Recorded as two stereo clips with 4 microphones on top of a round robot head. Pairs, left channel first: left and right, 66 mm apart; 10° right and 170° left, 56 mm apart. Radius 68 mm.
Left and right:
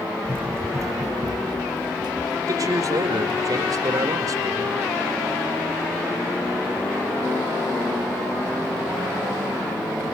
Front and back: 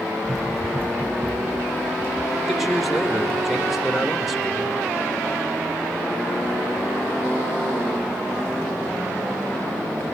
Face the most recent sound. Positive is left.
turn(degrees=-100)